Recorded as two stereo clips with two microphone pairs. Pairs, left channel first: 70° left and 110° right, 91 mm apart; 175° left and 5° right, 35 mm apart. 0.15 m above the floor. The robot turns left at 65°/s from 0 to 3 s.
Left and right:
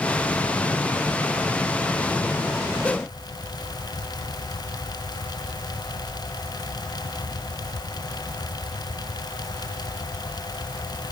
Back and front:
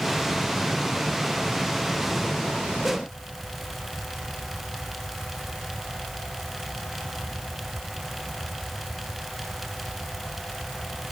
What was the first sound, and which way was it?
Only background noise.